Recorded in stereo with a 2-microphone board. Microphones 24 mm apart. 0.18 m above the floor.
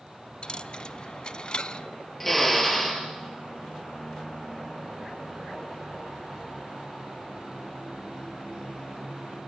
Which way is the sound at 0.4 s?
35° left (ahead or behind).